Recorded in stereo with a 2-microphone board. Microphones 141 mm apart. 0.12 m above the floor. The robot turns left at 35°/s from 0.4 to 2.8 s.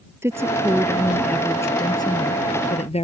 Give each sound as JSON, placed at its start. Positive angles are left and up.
{"t": 0.2, "sound": "a woman speaking", "azimuth_deg": -160}